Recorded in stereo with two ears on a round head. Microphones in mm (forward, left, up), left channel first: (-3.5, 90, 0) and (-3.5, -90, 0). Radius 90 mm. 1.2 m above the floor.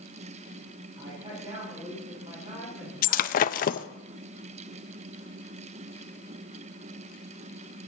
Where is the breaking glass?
45° left (ahead or behind), 0.6 m.